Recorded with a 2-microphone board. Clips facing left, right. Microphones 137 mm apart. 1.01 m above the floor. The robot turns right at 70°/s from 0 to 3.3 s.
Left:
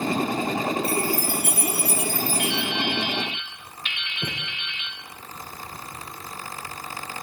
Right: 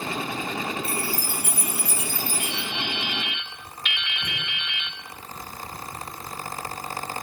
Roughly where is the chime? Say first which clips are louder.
Left 5 dB; ahead left.